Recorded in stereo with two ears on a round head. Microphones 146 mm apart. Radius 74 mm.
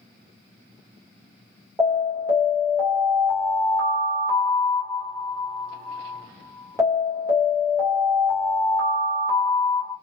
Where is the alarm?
15° right (ahead or behind), 0.9 m.